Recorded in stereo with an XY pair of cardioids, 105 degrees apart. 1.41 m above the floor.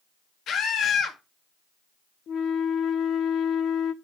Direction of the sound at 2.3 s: 65° left.